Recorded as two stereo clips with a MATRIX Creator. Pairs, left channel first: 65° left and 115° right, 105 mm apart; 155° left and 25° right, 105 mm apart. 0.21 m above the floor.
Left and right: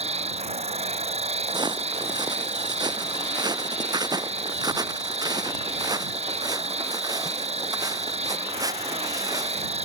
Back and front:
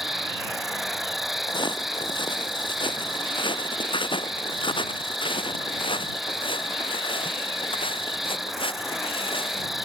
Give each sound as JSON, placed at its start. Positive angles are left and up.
{"t": 0.0, "sound": "an insect", "azimuth_deg": -110}
{"t": 1.5, "sound": "footsteps", "azimuth_deg": -160}